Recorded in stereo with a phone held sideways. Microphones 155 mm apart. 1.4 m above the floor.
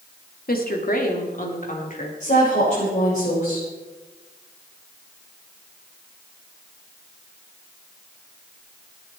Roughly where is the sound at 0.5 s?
Left.